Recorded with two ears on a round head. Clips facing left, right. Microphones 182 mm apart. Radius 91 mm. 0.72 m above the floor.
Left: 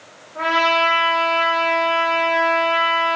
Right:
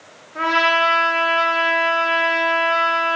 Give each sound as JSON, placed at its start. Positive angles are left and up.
{"t": 0.3, "sound": "a trumpet", "side_deg": -35, "distance_m": 0.8}